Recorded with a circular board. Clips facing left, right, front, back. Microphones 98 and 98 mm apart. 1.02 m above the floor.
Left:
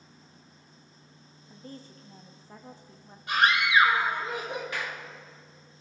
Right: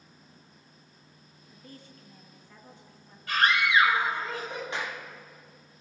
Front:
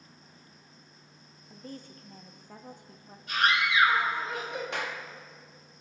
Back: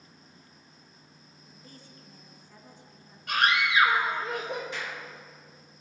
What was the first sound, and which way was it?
A woman speaking, 35° left.